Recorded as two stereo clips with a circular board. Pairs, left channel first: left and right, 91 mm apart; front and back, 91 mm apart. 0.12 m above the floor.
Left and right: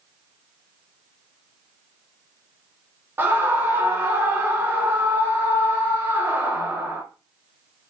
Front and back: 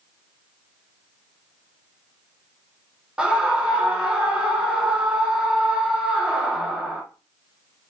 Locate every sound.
3.2 s a scream: 115° right, 1.3 m